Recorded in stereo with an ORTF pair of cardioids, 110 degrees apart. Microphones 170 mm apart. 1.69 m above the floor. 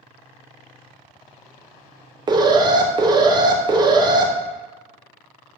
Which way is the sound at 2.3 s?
25° right.